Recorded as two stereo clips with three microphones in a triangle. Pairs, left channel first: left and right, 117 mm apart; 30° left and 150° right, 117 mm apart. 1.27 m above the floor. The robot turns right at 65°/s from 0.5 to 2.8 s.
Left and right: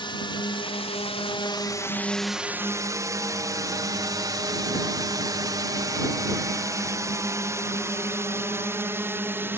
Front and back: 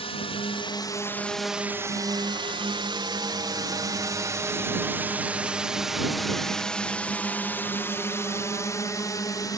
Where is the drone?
55° left; by 9.6 s 20° right.